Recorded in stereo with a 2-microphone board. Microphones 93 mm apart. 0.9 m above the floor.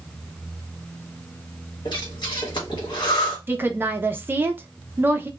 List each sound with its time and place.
1.9 s breathing: 55° left (ahead or behind), 1.1 m
3.5 s a woman speaking: 20° right (ahead or behind), 0.5 m